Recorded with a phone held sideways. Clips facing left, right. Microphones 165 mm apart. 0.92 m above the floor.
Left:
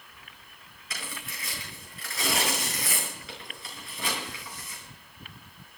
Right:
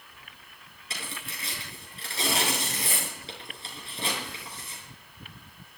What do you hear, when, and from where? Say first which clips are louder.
0.9 s tearing paper: right 1 dB; 30° right (ahead or behind), 5.5 m